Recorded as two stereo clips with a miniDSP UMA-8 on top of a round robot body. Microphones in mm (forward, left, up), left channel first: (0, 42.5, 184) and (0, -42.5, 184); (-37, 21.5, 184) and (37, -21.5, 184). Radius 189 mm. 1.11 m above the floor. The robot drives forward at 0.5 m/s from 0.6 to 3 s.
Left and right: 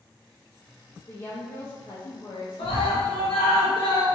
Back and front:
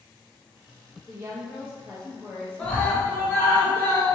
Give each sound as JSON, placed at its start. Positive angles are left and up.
{"t": 1.1, "sound": "a woman speaking", "azimuth_deg": 40, "distance_m": 1.2}
{"t": 2.6, "sound": "a scream", "azimuth_deg": 70, "distance_m": 1.0}